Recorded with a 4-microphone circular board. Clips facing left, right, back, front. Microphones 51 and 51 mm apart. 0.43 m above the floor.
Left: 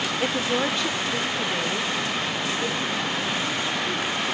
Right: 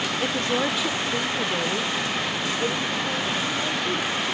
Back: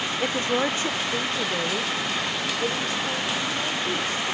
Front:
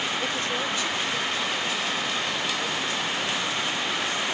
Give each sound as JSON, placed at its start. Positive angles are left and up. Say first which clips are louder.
{"t": 0.2, "sound": "a woman speaking", "louder": "even, back 4 dB", "azimuth_deg": 140, "distance_m": 0.8}